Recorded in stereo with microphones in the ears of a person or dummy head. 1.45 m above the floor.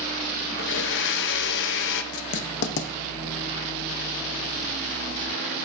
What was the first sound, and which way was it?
A blender, 70° left (ahead or behind).